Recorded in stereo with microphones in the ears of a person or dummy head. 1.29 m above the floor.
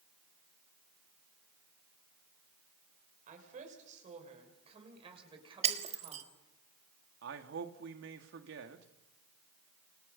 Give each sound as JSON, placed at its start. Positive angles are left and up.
{"t": 3.3, "sound": "a woman speaking", "side_deg": -45, "distance_m": 6.5}
{"t": 5.6, "sound": "breaking glass", "side_deg": -40, "distance_m": 1.6}
{"t": 7.2, "sound": "a man speaking", "side_deg": -75, "distance_m": 2.5}